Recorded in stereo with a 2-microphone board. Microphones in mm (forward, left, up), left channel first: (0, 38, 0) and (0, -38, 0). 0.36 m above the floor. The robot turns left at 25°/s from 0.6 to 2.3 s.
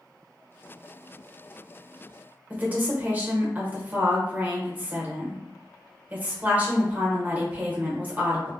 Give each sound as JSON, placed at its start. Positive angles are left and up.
{"t": 2.5, "sound": "a woman speaking", "side_deg": -20, "distance_m": 0.9}